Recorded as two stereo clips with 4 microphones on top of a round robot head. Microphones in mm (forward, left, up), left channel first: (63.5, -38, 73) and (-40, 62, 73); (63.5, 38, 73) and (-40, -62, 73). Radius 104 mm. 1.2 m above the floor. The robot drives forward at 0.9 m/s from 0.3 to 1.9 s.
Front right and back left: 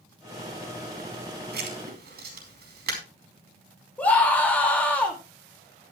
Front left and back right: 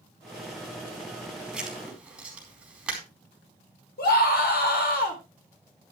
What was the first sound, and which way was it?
Writing, 135° left.